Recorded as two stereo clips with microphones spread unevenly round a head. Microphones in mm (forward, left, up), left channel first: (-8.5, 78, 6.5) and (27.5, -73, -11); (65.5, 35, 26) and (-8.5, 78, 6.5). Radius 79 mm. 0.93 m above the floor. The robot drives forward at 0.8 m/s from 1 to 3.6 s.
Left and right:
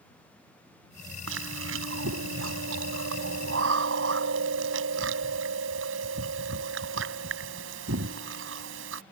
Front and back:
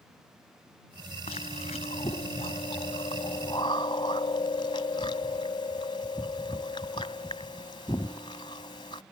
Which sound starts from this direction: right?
Chewing, at 1.3 s.